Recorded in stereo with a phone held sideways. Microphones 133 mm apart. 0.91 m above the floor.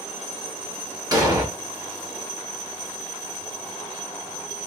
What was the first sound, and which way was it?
An explosion, 30° right (ahead or behind).